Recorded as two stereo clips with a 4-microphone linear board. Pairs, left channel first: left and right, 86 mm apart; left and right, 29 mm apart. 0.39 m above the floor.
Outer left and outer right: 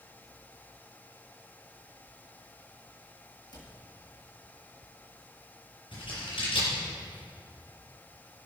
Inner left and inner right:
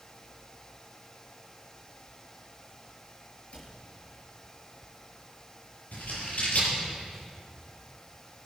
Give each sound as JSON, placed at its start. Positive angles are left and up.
{"t": 3.5, "sound": "a cupboard door", "side_deg": 60, "distance_m": 5.5}
{"t": 5.9, "sound": "scissors", "side_deg": 75, "distance_m": 7.5}